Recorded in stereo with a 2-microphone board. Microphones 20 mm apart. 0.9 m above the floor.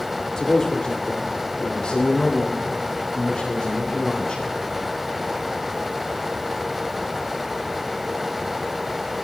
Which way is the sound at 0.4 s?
40° left (ahead or behind).